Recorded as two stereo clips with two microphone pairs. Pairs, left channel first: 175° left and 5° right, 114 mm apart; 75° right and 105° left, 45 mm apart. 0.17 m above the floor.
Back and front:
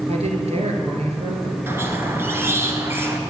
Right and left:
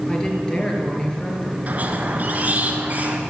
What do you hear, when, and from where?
0.1 s a woman speaking: 5° right, 3 m
1.7 s a squeak: 60° left, 1.2 m